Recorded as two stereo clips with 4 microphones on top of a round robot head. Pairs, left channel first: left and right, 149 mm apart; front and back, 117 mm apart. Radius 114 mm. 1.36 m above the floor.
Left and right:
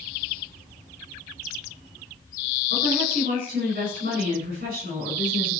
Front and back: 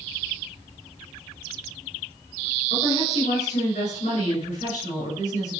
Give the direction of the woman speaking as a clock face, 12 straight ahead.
2 o'clock.